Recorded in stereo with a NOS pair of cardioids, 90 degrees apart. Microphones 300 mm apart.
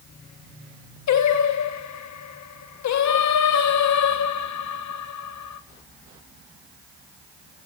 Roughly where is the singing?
Ahead left.